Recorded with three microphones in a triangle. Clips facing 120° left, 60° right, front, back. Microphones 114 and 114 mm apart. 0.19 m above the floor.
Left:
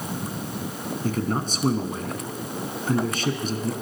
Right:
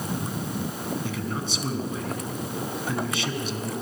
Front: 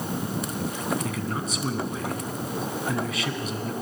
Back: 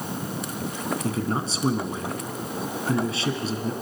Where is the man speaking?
135° left, 2.0 m.